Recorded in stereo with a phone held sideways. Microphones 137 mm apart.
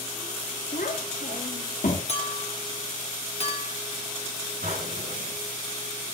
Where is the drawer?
85° right, 7.5 m.